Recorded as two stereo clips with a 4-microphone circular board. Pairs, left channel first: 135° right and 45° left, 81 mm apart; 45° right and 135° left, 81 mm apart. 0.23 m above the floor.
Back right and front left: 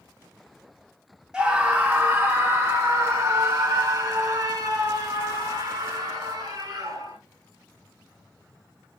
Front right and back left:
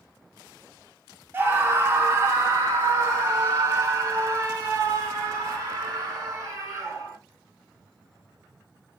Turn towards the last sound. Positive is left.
turn(degrees=80)